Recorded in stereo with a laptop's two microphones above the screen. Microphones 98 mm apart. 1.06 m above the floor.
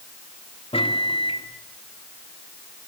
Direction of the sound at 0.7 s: 75° left (ahead or behind).